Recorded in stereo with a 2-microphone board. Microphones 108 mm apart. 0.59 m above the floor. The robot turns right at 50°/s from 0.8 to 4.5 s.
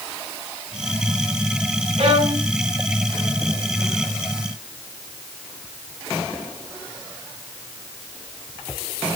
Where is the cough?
No cough in this recording.